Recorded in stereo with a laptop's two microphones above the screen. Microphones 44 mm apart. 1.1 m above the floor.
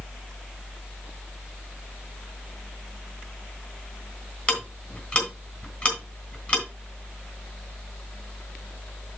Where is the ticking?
25° left (ahead or behind), 3 m.